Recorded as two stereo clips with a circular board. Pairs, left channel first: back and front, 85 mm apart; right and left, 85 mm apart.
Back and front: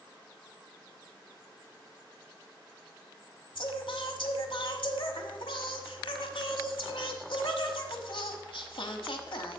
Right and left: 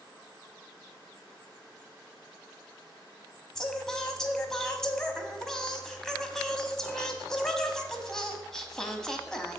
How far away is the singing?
About 1.0 m.